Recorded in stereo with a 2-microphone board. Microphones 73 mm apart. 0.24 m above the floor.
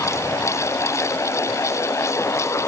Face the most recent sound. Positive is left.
No sound to turn to.